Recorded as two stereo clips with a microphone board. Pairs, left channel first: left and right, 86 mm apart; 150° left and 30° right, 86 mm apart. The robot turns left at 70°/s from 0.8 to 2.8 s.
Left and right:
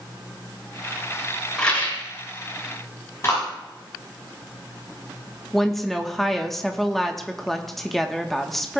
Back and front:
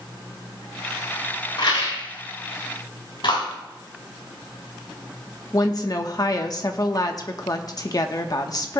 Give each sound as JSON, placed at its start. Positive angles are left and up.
{"t": 1.6, "sound": "a rattle", "azimuth_deg": 170, "distance_m": 3.5}
{"t": 3.2, "sound": "a clap", "azimuth_deg": 145, "distance_m": 6.5}
{"t": 5.5, "sound": "a woman speaking", "azimuth_deg": 175, "distance_m": 1.0}